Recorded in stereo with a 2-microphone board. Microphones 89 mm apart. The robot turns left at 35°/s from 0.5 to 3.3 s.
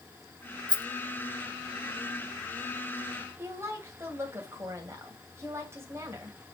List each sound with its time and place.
0.7 s a rattle: 60° left (ahead or behind), 0.7 m; by 0.8 s 55° left (ahead or behind), 0.7 m
3.4 s a woman speaking: 30° right (ahead or behind), 2.5 m